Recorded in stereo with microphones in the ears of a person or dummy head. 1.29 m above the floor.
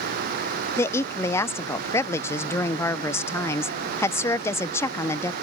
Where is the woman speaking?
15° left (ahead or behind).